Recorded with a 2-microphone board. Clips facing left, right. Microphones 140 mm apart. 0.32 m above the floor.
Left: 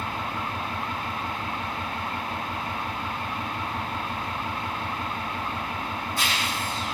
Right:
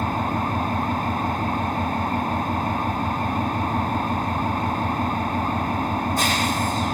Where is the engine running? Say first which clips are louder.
Right 7 dB; 45° right (ahead or behind), 1.1 m.